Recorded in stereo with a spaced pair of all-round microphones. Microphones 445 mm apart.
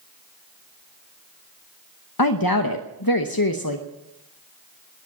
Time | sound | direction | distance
2.2 | a woman speaking | 50° left (ahead or behind) | 1.0 m